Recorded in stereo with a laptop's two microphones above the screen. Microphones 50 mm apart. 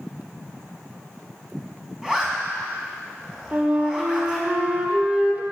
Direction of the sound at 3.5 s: 25° right (ahead or behind).